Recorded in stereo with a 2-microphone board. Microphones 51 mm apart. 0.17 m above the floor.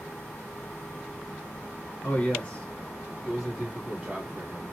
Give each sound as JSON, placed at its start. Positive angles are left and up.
{"t": 2.0, "sound": "a man speaking", "side_deg": 35, "distance_m": 1.8}